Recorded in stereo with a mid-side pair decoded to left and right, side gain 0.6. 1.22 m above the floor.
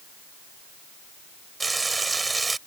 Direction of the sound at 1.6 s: 15° right.